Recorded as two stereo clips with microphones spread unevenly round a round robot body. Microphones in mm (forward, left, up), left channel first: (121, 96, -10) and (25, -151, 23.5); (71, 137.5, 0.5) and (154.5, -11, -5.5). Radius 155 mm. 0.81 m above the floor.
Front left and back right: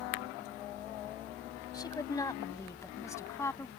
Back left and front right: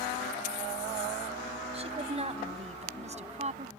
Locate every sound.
1.7 s a woman speaking: 10° right